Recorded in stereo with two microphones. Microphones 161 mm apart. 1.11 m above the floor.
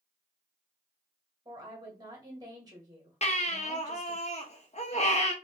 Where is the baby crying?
45° left (ahead or behind), 0.8 m.